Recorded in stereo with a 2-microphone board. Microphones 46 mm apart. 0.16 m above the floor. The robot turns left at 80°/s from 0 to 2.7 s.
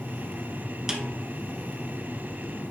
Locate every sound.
0.9 s a snare drum: 15° right (ahead or behind), 1.0 m; by 1.1 s 5° left (ahead or behind), 1.0 m